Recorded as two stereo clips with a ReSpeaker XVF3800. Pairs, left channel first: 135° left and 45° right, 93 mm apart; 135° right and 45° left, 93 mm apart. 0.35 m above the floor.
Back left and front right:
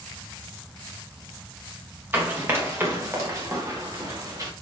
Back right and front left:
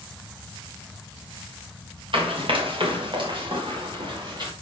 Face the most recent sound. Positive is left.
turn(degrees=5)